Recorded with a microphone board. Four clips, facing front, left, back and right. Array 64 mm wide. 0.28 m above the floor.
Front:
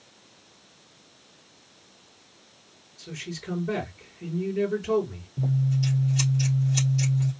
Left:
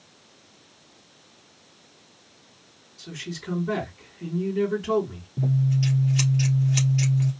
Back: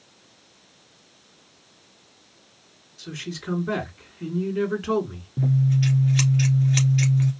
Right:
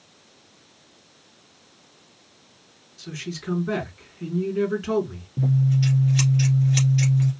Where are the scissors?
165° right, 1.8 m.